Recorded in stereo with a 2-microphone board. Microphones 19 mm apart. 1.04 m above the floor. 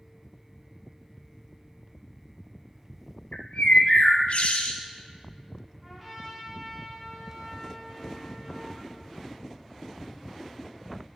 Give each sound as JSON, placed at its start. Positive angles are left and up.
{"t": 3.3, "sound": "a bird", "side_deg": 70, "distance_m": 0.6}
{"t": 5.8, "sound": "a trumpet", "side_deg": 0, "distance_m": 2.0}